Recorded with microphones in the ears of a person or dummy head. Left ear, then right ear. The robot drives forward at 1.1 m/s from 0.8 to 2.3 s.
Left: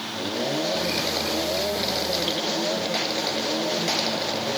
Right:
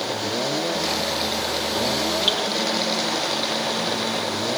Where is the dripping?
85° right, 3 m.